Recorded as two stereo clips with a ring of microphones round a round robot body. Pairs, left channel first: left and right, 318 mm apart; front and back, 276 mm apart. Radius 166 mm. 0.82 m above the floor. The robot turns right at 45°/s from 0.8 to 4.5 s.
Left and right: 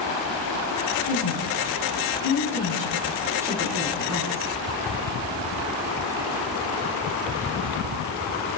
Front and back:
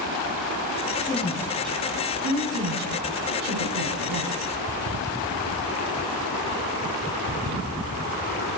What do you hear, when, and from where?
1.1 s a woman speaking: 80° left, 9.5 m; by 4.6 s 125° right, 9.5 m